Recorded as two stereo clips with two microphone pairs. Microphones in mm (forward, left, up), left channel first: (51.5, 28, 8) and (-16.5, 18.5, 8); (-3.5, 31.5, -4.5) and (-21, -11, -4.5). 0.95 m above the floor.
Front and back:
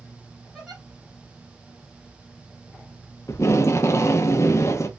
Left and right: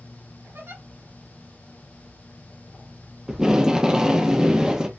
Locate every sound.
0.5 s a giggle: 85° right, 3 m
3.3 s tape being pulled: 35° right, 0.6 m